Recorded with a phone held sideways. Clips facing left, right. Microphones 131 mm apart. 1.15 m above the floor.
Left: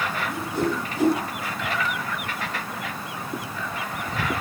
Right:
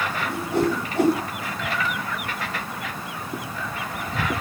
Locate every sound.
0.3 s a whoosh: 75° right (ahead or behind), 4 m